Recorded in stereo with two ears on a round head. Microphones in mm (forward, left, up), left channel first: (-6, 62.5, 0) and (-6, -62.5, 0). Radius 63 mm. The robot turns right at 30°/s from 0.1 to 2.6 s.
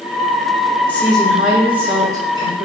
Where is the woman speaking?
170° left, 1.4 m; by 2.7 s 140° right, 1.4 m.